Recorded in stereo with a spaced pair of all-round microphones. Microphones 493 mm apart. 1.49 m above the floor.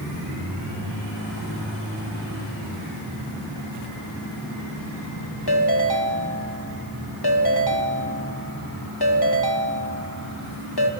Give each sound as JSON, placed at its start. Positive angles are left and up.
{"t": 5.5, "sound": "a ringtone", "side_deg": 50, "distance_m": 2.5}